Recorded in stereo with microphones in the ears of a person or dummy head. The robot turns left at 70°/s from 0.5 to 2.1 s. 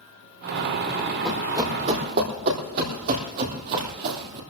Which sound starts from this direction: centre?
Running footsteps, at 1.2 s.